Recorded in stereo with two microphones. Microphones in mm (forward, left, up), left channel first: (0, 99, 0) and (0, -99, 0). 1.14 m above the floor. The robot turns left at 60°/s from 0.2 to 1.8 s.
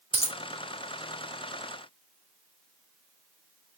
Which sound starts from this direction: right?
A dropped coin, at 0.1 s.